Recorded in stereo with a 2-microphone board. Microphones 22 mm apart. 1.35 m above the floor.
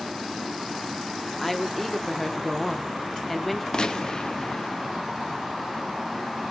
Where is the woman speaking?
10° left (ahead or behind), 0.8 m.